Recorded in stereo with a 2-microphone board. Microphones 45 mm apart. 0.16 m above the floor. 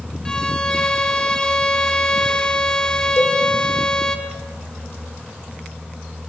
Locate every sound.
0.2 s a violin: 15° left (ahead or behind), 1.6 m
3.2 s a cowbell: 75° left (ahead or behind), 2.5 m